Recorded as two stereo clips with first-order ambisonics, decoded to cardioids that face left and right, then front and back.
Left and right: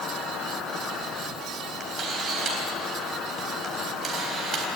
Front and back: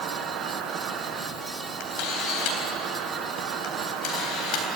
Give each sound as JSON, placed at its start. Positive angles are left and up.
{"t": 0.0, "sound": "an insect", "azimuth_deg": 145, "distance_m": 1.5}
{"t": 1.8, "sound": "a camera shutter", "azimuth_deg": -25, "distance_m": 3.5}